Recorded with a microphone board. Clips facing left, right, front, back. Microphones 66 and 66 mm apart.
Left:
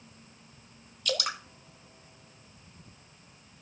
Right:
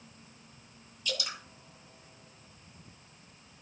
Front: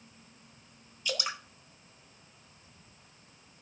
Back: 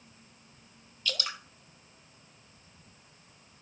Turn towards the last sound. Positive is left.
turn(degrees=70)